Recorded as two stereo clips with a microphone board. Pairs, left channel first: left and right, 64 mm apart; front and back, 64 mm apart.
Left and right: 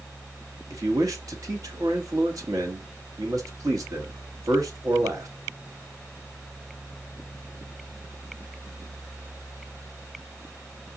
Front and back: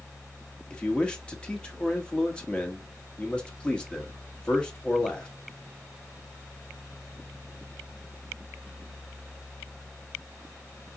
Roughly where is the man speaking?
Right.